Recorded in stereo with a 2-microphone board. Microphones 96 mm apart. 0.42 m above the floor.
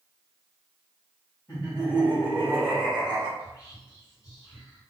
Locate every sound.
1.5 s laughter: 30° left (ahead or behind), 1.6 m; by 3.3 s 20° right (ahead or behind), 1.5 m
3.4 s whispering: 35° left (ahead or behind), 1.8 m